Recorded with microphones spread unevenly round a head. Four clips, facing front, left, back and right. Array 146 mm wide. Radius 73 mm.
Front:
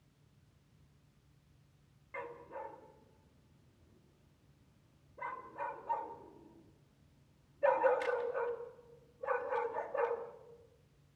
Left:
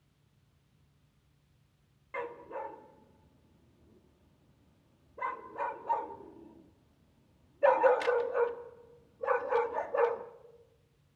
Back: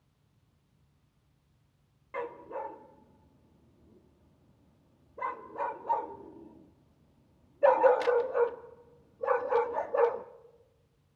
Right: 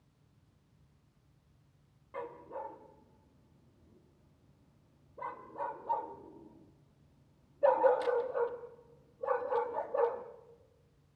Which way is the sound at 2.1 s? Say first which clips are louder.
Left 3 dB, back 8 dB; 145° left.